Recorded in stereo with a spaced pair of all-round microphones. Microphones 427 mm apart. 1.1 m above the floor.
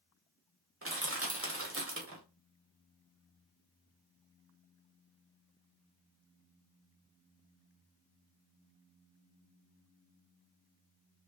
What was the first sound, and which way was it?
Crushing, 30° right (ahead or behind).